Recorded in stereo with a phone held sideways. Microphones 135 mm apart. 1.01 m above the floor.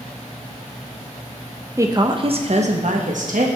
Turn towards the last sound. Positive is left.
turn(degrees=-75)  # may be behind; listen again after turning